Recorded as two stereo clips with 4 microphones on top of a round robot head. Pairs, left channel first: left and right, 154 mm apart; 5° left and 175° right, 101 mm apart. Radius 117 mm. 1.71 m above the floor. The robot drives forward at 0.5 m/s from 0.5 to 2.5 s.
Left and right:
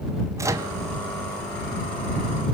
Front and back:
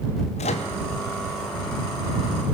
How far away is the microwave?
About 0.9 m.